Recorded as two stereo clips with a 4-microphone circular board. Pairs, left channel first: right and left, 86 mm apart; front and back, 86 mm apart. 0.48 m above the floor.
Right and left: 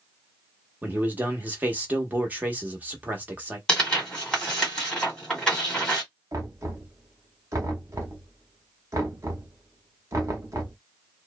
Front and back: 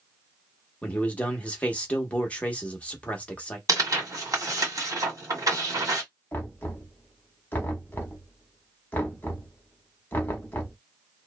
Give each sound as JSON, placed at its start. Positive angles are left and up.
{"t": 0.8, "sound": "a man speaking", "azimuth_deg": 50, "distance_m": 0.8}
{"t": 3.7, "sound": "tearing paper", "azimuth_deg": -165, "distance_m": 1.8}
{"t": 6.3, "sound": "knocking", "azimuth_deg": 55, "distance_m": 0.9}